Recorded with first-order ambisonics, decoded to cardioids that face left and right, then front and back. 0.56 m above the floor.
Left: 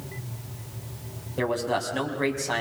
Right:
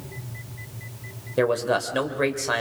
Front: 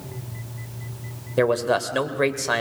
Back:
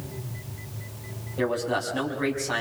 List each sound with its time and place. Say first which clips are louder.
1.4 s a man speaking: right 4 dB, front 6 dB; 35° right, 3 m